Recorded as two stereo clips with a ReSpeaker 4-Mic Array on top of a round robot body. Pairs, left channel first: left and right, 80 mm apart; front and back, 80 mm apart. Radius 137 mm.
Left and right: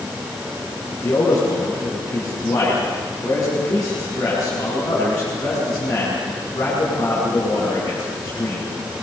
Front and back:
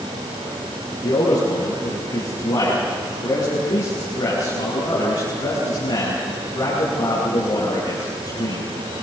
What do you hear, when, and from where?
1.0 s a man speaking: 45° left, 8.5 m